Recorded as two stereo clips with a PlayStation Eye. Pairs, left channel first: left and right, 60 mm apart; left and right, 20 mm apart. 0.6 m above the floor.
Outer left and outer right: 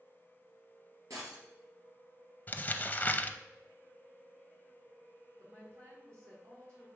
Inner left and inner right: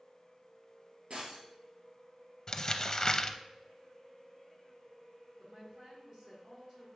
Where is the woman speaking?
55° right (ahead or behind), 4 m.